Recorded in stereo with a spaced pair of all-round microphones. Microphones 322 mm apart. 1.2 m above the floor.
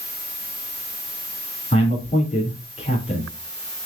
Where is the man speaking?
20° left (ahead or behind), 3 m.